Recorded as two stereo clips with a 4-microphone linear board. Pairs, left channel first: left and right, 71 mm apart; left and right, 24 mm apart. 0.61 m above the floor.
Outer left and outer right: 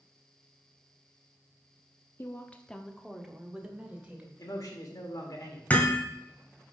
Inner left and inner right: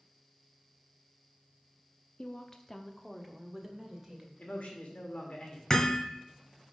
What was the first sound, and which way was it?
A woman speaking, 35° left (ahead or behind).